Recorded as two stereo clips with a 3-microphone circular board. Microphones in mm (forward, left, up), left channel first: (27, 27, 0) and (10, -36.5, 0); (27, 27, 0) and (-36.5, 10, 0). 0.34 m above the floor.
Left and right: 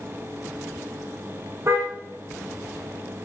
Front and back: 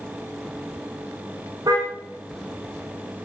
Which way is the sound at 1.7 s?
150° right.